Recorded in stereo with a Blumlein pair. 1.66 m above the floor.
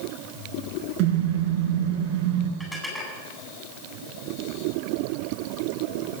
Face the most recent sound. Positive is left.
turn(degrees=5)